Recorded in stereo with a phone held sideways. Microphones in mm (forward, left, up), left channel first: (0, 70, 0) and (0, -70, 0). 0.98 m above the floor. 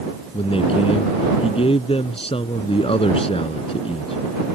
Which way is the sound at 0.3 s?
40° left (ahead or behind).